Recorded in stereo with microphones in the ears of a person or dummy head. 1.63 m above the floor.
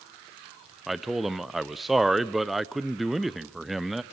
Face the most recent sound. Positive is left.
turn(degrees=0)  # may be behind; listen again after turning